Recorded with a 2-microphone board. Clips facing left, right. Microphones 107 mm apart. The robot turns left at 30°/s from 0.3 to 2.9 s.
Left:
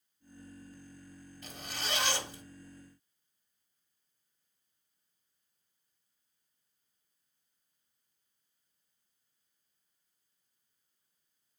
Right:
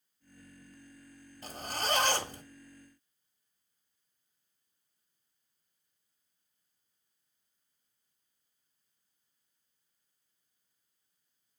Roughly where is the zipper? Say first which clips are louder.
Right 7 dB; ahead right.